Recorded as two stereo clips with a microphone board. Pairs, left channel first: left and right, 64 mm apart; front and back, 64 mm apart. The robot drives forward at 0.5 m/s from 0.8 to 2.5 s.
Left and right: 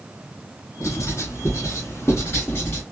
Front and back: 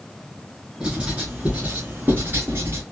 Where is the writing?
105° left, 1.6 m; by 2.8 s 135° left, 2.0 m.